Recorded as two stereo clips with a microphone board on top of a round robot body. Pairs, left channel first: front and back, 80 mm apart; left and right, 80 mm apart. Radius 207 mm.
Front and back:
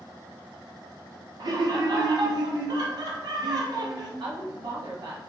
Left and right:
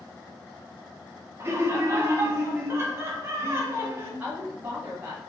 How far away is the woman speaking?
About 1.0 m.